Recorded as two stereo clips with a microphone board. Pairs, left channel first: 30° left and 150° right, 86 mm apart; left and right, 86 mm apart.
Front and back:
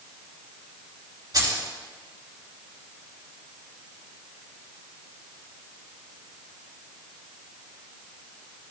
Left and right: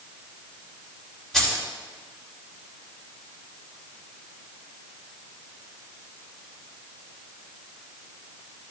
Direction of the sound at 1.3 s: 175° left.